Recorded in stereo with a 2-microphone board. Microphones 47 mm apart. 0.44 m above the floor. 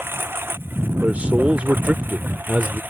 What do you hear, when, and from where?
0.0 s a lawn mower: 55° right (ahead or behind); by 2.9 s 45° right (ahead or behind)
1.0 s a man speaking: 30° right (ahead or behind)